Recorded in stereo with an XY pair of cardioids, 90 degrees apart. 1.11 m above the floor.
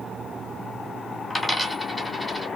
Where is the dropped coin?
10° left, 1.4 m.